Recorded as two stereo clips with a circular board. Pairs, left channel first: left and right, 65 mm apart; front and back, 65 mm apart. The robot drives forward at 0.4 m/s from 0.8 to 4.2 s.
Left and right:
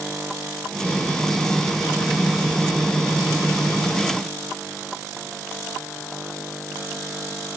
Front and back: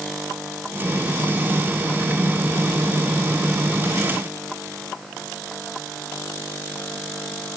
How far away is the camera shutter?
I don't hear a camera shutter.